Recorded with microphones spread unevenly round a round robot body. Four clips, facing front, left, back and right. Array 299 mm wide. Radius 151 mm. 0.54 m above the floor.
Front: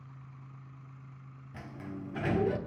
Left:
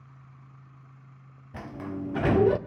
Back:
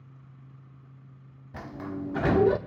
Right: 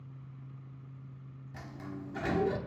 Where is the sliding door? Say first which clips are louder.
Left 8 dB, back 7 dB; 130° left, 0.9 m.